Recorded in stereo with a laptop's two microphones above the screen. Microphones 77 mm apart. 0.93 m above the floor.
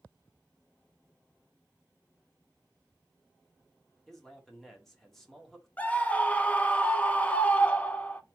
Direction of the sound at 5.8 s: 20° left (ahead or behind).